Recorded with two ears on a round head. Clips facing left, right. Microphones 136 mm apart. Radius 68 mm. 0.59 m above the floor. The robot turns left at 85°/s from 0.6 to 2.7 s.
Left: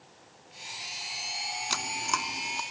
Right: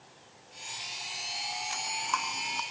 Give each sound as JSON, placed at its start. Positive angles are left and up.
{"t": 1.7, "sound": "chewing", "side_deg": 75, "distance_m": 1.3}